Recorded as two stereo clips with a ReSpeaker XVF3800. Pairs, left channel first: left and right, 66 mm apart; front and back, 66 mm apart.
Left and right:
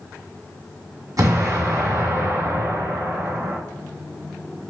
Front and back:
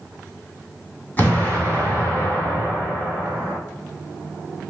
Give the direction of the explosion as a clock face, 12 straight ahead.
2 o'clock.